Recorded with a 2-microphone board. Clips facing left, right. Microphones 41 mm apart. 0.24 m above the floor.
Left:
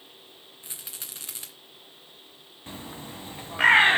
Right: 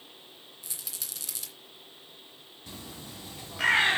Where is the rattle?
35° left (ahead or behind), 2.5 m.